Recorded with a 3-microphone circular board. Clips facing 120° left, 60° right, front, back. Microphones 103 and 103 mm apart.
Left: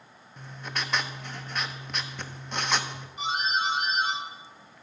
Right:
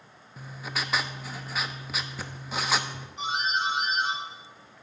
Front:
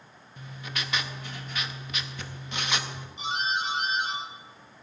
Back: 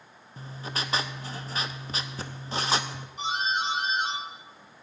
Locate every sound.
0.4 s writing: 145° right, 0.6 m
3.2 s a doorbell: 155° right, 6.5 m